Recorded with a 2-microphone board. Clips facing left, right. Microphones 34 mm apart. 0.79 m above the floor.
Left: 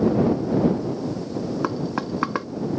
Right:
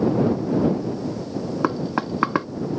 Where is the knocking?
10° right (ahead or behind).